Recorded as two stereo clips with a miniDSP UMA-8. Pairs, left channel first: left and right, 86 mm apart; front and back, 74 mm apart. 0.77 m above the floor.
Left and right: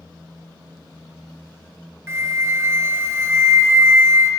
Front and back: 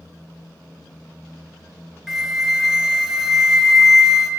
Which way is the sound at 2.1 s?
105° right.